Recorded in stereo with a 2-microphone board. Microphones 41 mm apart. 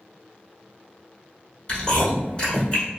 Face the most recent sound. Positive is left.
turn(degrees=30)  # may be behind; listen again after turning